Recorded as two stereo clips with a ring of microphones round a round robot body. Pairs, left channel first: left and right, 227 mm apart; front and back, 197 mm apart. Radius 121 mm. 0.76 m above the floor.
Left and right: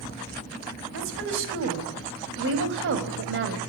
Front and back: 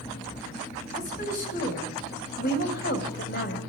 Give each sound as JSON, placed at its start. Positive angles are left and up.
{"t": 0.9, "sound": "a woman speaking", "azimuth_deg": -55, "distance_m": 5.0}